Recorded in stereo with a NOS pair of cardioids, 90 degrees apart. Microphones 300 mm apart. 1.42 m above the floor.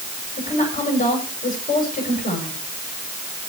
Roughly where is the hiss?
I don't hear a hiss.